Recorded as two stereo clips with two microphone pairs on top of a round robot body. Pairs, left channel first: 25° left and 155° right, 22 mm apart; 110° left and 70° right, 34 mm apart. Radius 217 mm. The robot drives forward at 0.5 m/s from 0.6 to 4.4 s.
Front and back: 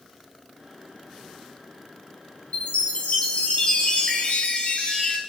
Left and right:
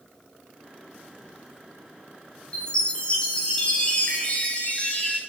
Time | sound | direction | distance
2.5 | a chime | 45° left | 4 m